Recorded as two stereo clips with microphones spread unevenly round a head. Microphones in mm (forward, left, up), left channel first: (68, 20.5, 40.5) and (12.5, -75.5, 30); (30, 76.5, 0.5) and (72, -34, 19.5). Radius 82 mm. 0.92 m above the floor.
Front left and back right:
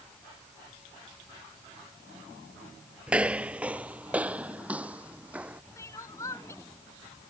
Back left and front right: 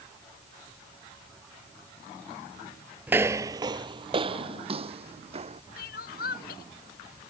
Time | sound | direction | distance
3.1 | footsteps | 35° right | ?
5.8 | crying | 135° left | ?